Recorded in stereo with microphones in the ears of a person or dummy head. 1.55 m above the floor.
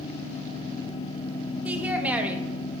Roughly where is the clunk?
I don't hear a clunk.